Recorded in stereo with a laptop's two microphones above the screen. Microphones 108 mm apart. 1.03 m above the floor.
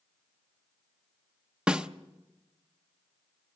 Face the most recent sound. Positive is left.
turn(degrees=-10)  # may be behind; listen again after turning